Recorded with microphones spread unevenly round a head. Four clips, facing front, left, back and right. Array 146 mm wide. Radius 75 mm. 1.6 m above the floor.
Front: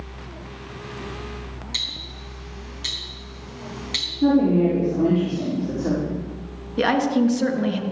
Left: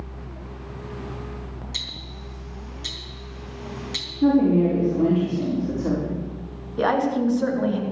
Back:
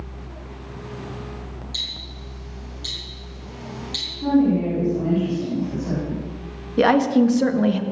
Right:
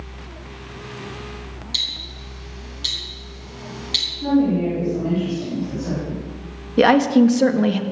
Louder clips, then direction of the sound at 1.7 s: Right 1 dB, front 1 dB; 5° left.